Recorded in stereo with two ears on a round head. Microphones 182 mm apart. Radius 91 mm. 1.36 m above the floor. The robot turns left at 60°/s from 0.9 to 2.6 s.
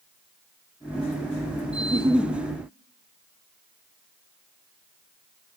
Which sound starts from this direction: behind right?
A giggle, at 1.8 s.